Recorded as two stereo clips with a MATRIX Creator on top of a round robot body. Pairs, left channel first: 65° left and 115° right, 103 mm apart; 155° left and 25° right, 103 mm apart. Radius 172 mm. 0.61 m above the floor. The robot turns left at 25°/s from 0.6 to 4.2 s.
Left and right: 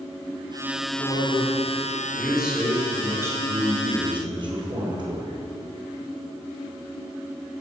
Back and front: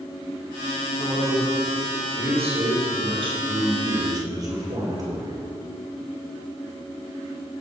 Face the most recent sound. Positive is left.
turn(degrees=-75)